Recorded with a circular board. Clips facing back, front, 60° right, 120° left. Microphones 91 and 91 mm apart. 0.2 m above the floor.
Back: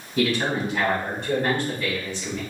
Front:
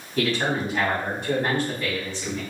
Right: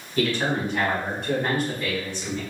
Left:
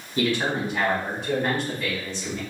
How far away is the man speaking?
About 1.5 m.